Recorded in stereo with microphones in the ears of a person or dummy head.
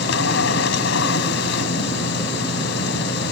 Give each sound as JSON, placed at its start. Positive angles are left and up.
{"t": 0.0, "sound": "a machine running", "side_deg": 75}